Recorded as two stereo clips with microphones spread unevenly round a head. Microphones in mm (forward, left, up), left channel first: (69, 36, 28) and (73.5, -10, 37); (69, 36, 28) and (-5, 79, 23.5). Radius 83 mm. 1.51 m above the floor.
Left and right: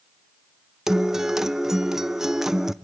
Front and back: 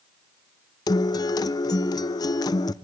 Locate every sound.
0.9 s a guitar: 15° right, 0.5 m